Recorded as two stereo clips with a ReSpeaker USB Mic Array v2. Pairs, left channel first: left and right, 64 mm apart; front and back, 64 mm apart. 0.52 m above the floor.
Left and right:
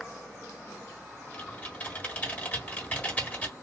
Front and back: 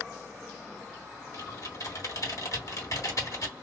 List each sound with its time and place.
1.3 s typing on a keyboard: 25° left, 1.3 m